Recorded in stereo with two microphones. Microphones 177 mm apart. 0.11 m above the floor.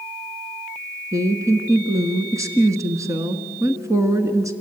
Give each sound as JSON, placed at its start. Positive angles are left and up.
{"t": 1.1, "sound": "a woman speaking", "side_deg": -15, "distance_m": 1.2}